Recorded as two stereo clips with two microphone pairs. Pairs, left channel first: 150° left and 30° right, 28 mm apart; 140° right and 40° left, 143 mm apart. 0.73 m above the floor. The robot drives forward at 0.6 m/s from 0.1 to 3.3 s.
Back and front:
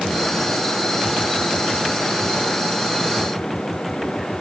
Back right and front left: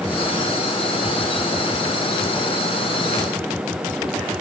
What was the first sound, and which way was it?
Only background noise.